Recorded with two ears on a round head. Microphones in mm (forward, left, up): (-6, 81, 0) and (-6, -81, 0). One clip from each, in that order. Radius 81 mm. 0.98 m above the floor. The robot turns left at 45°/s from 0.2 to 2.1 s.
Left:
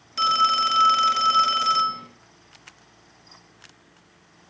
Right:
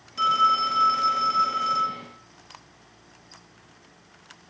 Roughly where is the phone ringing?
Behind left.